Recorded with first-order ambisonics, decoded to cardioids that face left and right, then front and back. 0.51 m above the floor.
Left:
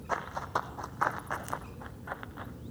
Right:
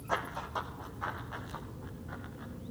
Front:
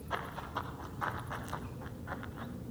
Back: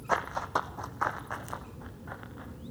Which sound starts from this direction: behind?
Running footsteps, at 0.1 s.